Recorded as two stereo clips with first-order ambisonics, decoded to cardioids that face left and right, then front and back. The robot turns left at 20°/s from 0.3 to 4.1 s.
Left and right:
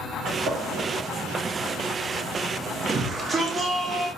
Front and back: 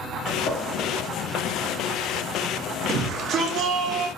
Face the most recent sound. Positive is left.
turn(degrees=-170)